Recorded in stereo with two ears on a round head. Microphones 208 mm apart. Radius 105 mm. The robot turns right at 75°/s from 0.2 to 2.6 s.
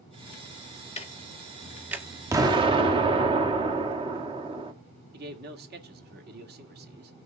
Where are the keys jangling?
No keys jangling in this recording.